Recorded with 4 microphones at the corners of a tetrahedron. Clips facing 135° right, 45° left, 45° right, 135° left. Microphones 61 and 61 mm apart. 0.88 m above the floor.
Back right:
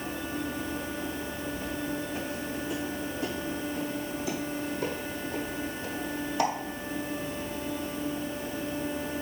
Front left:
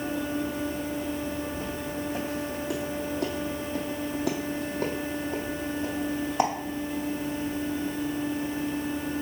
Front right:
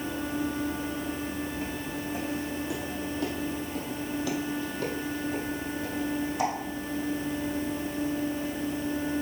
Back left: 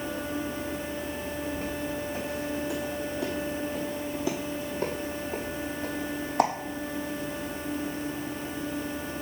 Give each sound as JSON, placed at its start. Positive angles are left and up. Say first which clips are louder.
{"t": 1.5, "sound": "footsteps", "louder": "even, back left 2 dB", "azimuth_deg": 35, "distance_m": 3.0}